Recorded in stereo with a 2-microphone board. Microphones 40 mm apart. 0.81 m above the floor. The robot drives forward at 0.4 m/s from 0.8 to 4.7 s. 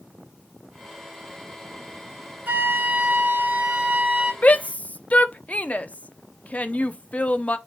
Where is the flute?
45° right (ahead or behind), 2 m; by 4.3 s 35° right (ahead or behind), 2.5 m.